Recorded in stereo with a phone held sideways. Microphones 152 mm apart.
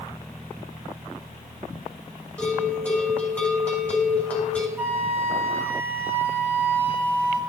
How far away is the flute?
About 2.5 m.